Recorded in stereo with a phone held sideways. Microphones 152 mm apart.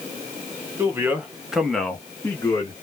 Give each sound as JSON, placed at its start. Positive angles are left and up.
{"t": 0.8, "sound": "a man speaking", "side_deg": -15, "distance_m": 1.0}